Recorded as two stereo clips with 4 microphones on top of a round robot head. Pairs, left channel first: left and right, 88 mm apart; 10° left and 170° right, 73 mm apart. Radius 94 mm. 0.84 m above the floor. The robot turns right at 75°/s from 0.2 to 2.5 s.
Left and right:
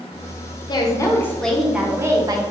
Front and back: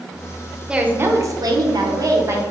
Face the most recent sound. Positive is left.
turn(degrees=-110)